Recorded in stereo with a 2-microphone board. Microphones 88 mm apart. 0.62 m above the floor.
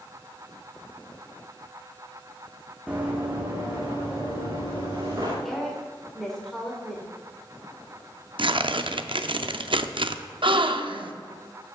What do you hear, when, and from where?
2.9 s running footsteps: 15° right (ahead or behind), 1.9 m; by 5.3 s 40° right (ahead or behind), 5 m
5.5 s a woman speaking: 5° left (ahead or behind), 1.8 m
8.4 s tearing paper: 65° right (ahead or behind), 0.5 m
10.4 s a gasp: 65° right (ahead or behind), 0.6 m